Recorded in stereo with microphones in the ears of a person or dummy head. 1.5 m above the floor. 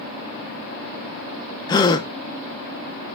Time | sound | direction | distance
1.7 | a gasp | 25° left (ahead or behind) | 0.8 m